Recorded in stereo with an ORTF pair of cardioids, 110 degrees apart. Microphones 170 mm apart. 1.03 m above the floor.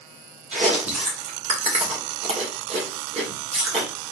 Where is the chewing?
40° right, 1.9 m.